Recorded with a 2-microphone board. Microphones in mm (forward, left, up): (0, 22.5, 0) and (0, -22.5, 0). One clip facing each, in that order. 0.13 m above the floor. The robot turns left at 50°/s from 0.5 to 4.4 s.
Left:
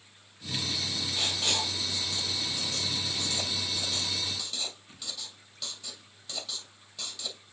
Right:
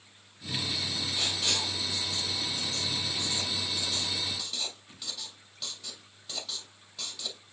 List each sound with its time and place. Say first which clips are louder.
1.1 s writing: left 2 dB; 25° left (ahead or behind), 2.5 m; by 7.5 s 10° right (ahead or behind), 2.5 m